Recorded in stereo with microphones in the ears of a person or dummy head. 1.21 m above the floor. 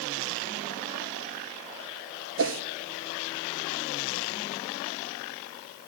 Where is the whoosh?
65° right (ahead or behind), 0.8 m.